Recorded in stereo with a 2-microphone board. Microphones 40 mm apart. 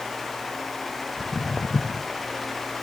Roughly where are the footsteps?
Left.